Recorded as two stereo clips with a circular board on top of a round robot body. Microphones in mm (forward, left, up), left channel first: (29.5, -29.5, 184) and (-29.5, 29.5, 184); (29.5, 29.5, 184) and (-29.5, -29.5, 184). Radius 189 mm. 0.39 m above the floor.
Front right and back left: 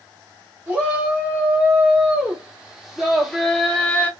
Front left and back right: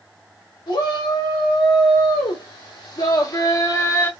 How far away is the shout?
About 2.5 m.